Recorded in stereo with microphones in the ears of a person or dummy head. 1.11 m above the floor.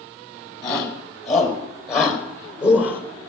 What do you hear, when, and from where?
0.6 s a shout: 25° left (ahead or behind), 5.5 m; by 3.0 s 10° left (ahead or behind), 4 m